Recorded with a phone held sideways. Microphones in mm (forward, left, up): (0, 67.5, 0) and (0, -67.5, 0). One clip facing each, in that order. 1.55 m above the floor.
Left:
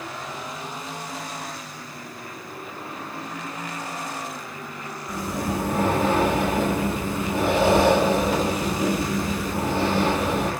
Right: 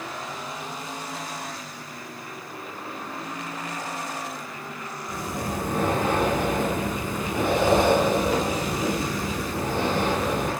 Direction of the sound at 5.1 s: 5° left (ahead or behind).